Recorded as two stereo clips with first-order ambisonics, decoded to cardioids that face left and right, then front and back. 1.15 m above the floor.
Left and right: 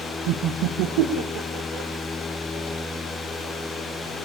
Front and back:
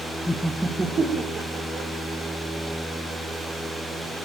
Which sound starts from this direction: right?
Laughter, at 0.3 s.